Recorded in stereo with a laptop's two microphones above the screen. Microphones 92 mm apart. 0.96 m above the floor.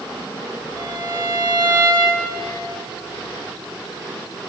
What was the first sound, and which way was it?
A violin, 50° right (ahead or behind).